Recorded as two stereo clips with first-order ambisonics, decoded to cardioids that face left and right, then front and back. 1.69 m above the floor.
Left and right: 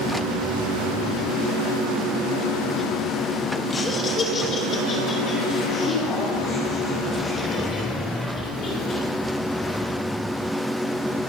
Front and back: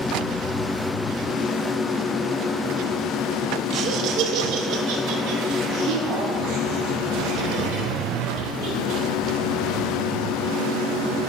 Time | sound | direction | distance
3.7 | laughter | 150° left | 0.6 m